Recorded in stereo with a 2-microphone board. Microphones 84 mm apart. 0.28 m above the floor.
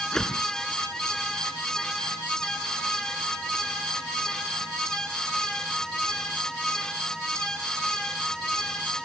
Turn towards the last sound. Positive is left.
turn(degrees=5)  # may be behind; listen again after turning